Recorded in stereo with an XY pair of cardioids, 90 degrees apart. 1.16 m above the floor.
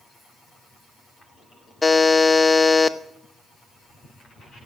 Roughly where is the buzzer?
Ahead.